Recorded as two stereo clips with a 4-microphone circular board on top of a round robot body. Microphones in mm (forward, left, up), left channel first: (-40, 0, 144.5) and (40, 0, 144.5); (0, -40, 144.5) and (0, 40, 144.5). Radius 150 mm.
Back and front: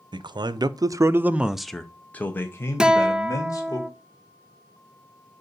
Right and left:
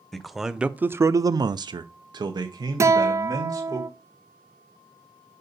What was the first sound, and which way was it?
A man speaking, 5° right.